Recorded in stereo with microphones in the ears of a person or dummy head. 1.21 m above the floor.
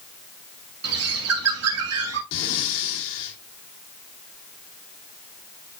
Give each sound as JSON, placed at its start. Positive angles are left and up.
{"t": 0.8, "sound": "a bird", "side_deg": -75, "distance_m": 1.9}
{"t": 2.3, "sound": "breathing", "side_deg": 65, "distance_m": 3.0}